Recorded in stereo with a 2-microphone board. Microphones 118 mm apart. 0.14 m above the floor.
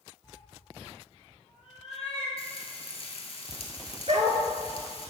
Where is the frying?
55° left (ahead or behind), 1.4 m.